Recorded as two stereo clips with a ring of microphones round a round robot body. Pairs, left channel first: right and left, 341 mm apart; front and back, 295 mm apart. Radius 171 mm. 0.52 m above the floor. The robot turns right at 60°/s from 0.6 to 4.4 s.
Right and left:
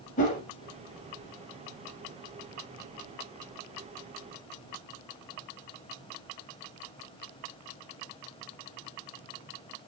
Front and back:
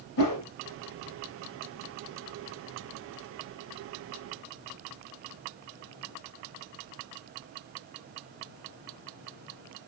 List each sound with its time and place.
0.2 s a whoosh: 25° right, 1.0 m